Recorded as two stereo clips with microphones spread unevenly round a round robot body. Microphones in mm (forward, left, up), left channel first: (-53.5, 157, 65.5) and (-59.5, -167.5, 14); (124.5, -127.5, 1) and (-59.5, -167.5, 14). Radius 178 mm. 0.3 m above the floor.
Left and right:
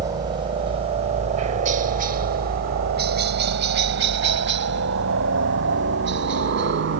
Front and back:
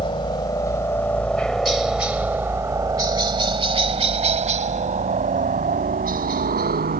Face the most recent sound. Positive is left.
turn(degrees=-140)